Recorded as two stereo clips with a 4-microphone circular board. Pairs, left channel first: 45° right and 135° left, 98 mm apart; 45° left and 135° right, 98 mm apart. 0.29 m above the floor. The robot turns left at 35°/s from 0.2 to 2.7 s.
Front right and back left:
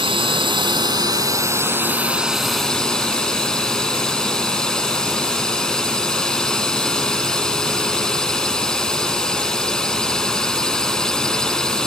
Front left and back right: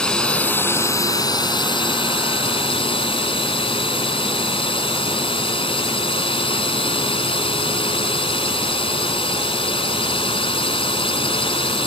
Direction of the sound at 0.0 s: 125° left.